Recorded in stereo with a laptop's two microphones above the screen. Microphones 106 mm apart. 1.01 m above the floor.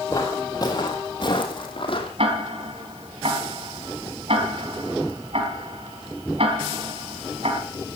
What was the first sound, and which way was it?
Footsteps, 30° left (ahead or behind).